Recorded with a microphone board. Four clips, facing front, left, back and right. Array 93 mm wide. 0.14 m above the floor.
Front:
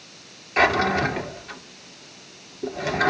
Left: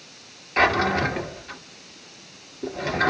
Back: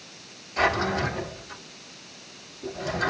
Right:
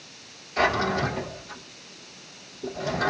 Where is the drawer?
45° left, 1.7 m.